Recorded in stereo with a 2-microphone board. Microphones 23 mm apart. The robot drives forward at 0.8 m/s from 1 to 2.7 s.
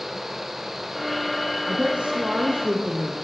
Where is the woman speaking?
55° right (ahead or behind), 3.5 m; by 3.2 s 65° right (ahead or behind), 3.5 m.